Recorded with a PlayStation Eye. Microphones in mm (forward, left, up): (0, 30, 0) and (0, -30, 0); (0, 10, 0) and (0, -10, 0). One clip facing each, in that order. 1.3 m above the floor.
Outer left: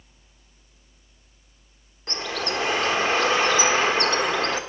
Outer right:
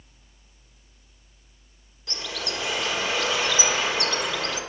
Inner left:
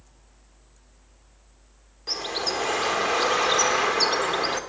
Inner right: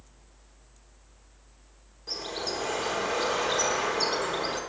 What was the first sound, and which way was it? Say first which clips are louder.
A bird: outer left 5 dB, inner left 5 dB; 40° left (ahead or behind).